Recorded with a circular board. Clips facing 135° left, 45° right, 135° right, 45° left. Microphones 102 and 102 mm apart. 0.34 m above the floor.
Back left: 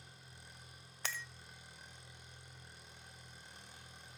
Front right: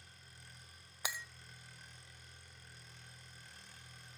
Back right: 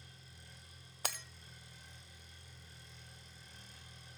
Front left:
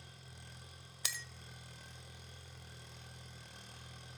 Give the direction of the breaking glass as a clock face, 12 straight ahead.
4 o'clock.